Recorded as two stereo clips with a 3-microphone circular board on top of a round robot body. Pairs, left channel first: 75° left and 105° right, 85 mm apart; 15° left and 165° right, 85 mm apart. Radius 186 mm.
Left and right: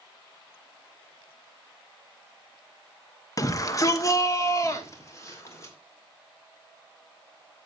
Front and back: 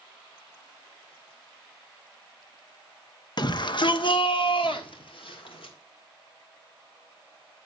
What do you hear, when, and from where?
3.4 s a shout: 35° left, 1.0 m; by 5.8 s 20° left, 2 m